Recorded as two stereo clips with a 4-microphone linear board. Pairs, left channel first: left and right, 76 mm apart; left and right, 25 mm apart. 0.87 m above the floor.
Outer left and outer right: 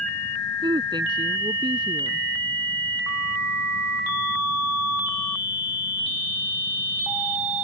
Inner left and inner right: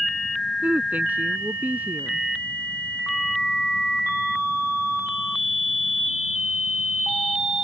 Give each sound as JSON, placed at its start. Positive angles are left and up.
{"t": 0.6, "sound": "a woman speaking", "side_deg": -80}